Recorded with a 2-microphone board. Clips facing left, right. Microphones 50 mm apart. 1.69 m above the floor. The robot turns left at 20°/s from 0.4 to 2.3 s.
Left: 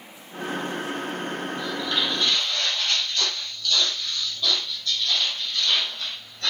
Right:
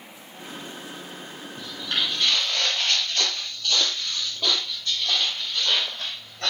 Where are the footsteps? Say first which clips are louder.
Even; 40° right (ahead or behind), 3 m; by 6.5 s 60° right (ahead or behind), 4.5 m.